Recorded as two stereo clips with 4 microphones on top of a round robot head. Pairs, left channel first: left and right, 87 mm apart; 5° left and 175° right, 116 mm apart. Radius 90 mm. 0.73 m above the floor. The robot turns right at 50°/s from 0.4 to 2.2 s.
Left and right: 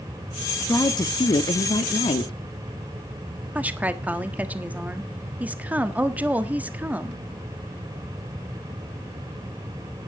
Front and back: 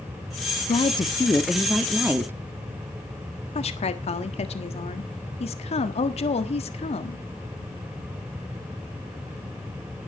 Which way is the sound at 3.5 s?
20° right.